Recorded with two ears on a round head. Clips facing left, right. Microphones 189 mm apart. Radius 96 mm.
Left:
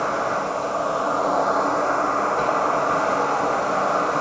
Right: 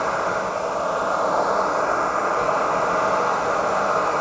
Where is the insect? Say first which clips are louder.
Even; 75° left (ahead or behind), 1.6 m.